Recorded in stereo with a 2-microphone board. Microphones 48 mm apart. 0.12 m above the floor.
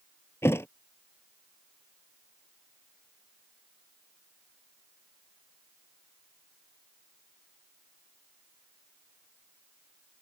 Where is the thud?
60° left (ahead or behind).